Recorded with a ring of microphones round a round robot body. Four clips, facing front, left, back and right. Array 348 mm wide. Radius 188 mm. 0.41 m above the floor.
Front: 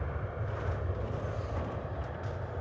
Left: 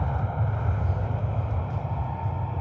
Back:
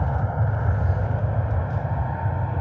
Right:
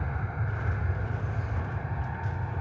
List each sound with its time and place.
0.0 s an aircraft: 160° left; by 2.6 s 170° left